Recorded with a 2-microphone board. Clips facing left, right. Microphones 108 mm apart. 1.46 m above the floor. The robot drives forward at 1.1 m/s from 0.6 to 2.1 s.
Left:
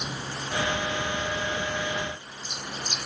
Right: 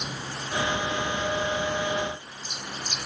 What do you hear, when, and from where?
Only background noise.